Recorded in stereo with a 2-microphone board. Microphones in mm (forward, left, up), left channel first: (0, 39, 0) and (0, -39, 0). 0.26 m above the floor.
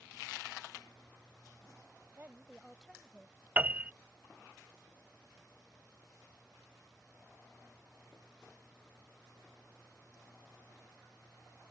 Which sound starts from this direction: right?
A woman speaking, at 2.2 s.